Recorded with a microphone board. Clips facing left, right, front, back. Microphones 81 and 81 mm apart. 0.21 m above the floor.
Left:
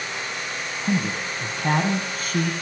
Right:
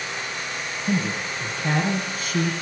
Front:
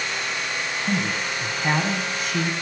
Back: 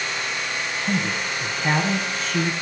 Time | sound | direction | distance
0.8 | a man speaking | 80° left | 1.9 m